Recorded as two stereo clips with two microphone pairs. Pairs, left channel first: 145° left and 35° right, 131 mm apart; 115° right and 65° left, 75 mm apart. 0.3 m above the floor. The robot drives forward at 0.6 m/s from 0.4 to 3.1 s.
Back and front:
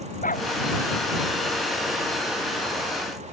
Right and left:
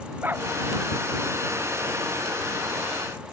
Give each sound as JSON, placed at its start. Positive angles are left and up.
{"t": 0.2, "sound": "a dog barking", "azimuth_deg": 130}